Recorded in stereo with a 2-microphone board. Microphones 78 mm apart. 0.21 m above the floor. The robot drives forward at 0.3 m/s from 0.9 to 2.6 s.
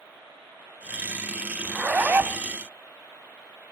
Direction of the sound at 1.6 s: 25° right (ahead or behind).